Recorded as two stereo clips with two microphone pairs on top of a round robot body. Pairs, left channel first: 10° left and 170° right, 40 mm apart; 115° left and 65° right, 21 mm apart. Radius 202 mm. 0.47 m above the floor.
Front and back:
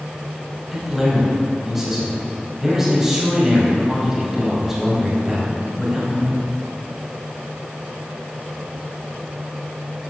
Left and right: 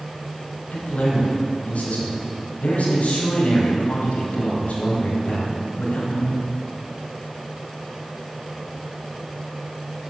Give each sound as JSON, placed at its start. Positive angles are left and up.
{"t": 0.7, "sound": "a man speaking", "azimuth_deg": 110, "distance_m": 5.0}